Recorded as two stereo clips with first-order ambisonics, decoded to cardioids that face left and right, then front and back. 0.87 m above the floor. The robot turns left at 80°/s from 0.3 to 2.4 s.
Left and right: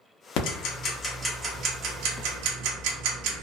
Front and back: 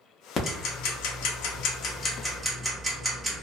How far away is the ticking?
About 0.6 m.